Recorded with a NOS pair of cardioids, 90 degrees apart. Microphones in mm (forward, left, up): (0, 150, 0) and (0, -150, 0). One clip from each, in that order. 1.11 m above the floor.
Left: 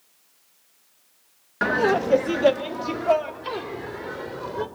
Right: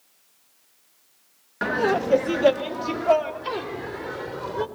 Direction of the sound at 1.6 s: 15° left.